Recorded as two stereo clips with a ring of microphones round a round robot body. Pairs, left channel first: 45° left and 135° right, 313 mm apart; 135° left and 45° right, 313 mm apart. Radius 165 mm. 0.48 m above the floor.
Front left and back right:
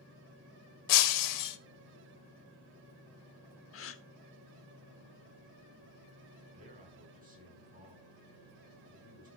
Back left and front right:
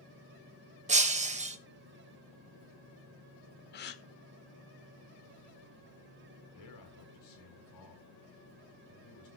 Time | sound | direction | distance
0.9 | breaking glass | 25° left | 1.4 m
3.7 | a gasp | 85° left | 1.5 m
6.5 | a man speaking | 160° left | 7.5 m